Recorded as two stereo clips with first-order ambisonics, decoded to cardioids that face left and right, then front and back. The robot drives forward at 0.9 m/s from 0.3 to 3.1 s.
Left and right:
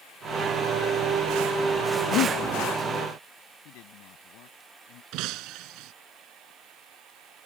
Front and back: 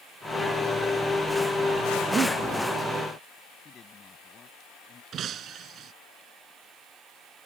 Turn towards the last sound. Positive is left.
turn(degrees=-125)